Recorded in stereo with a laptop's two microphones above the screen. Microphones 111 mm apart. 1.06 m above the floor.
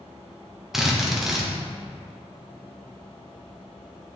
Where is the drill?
5° right (ahead or behind), 1.0 m.